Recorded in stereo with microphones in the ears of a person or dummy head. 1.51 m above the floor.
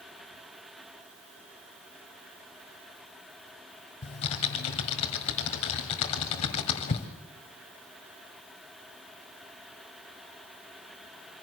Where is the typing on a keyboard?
30° left (ahead or behind), 1.6 m.